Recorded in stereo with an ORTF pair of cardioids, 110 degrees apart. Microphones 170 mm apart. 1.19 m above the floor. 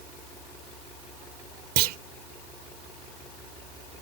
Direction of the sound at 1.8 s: 70° right.